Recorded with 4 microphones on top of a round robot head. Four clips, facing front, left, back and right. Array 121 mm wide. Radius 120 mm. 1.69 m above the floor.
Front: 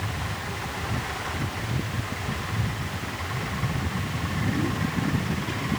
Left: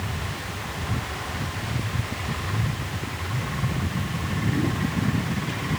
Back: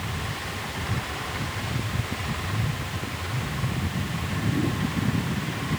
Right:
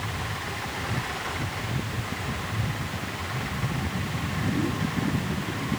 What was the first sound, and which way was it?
Only background noise.